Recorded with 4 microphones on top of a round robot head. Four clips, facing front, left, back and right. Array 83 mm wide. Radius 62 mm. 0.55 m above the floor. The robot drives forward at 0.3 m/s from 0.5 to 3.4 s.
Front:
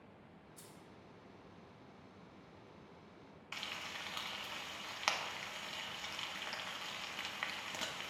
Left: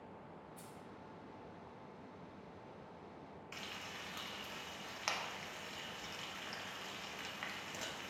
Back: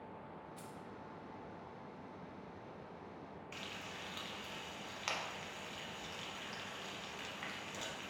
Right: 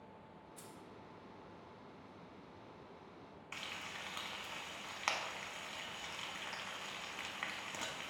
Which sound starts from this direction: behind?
Keys jangling, at 0.6 s.